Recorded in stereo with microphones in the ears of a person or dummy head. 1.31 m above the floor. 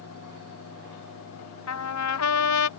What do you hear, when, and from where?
1.7 s a trumpet: 80° left